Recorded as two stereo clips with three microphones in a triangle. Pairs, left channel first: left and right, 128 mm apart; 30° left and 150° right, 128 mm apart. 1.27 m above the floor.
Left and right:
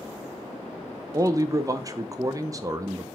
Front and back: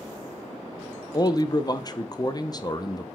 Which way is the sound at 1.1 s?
30° right.